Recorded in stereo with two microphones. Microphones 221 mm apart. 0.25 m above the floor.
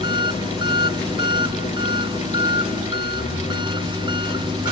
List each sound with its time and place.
0.0 s an engine running: 20° right (ahead or behind)